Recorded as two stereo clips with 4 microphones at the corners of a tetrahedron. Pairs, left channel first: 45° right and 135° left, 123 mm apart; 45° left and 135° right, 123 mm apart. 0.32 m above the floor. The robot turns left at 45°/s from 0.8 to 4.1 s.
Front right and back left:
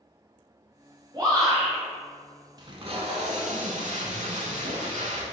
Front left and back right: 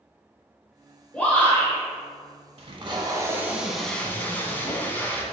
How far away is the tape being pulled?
About 0.7 m.